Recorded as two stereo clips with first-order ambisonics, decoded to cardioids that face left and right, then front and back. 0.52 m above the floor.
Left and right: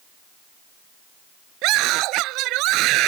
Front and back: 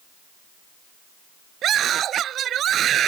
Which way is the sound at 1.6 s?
125° right.